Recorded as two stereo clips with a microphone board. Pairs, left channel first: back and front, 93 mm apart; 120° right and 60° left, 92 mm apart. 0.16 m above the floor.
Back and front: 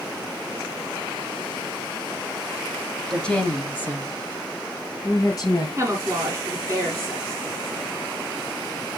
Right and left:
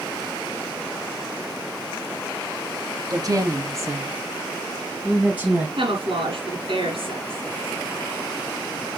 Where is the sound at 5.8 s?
60° left, 5.5 m.